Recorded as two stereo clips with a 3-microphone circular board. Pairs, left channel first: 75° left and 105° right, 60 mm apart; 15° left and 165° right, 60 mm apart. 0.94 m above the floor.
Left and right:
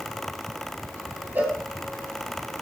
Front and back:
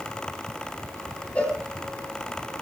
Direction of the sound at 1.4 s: 45° right.